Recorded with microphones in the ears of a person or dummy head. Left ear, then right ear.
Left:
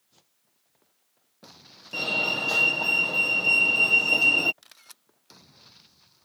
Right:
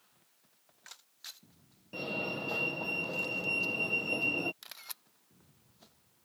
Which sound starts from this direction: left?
A fire alarm, at 1.9 s.